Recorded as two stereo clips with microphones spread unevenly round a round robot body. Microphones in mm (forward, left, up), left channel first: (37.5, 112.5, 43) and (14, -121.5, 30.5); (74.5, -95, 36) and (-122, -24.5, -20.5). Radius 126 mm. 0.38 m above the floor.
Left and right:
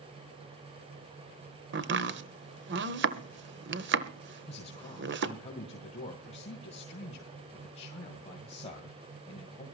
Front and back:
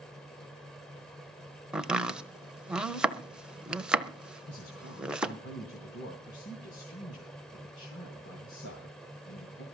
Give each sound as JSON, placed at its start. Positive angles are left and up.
{"t": 1.7, "sound": "chopping", "azimuth_deg": -125, "distance_m": 1.0}
{"t": 4.5, "sound": "a man speaking", "azimuth_deg": 20, "distance_m": 3.0}